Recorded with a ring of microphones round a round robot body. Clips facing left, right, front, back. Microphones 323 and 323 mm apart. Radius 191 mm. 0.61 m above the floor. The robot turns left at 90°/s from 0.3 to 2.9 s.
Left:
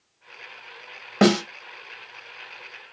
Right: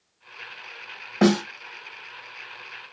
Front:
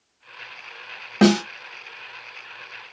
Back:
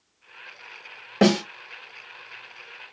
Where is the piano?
I don't hear a piano.